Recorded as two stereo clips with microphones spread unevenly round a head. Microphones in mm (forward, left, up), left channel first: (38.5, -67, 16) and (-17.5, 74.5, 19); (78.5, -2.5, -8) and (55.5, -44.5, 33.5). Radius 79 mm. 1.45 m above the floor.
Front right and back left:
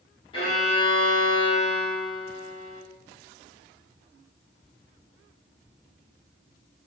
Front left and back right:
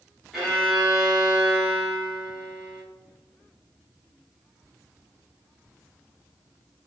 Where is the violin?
110° right, 0.8 m.